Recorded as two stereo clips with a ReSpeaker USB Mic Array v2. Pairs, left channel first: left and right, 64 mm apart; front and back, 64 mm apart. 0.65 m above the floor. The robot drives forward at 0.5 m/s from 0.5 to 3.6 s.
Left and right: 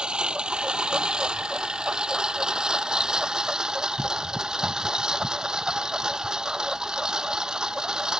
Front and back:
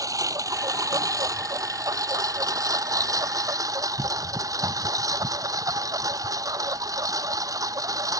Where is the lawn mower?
165° right; by 8.2 s 170° right.